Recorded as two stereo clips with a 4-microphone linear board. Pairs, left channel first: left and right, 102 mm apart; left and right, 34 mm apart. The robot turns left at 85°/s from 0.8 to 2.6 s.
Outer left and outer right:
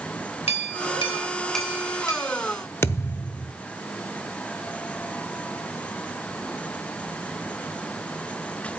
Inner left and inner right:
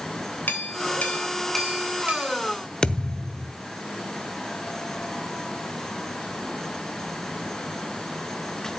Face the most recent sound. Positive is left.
turn(degrees=25)  # may be behind; listen again after turning